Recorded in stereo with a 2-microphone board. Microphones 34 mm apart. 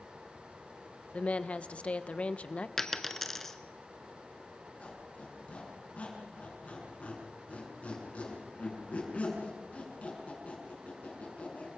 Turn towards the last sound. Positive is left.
turn(degrees=40)  # may be behind; listen again after turning